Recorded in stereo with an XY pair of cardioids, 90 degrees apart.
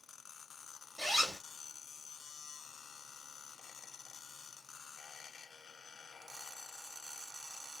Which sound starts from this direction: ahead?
A zipper, at 1.0 s.